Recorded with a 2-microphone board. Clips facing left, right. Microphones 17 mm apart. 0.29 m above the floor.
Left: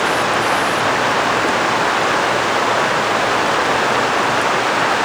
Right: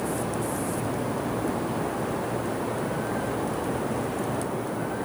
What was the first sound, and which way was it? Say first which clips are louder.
Running water: left 13 dB; 80° left.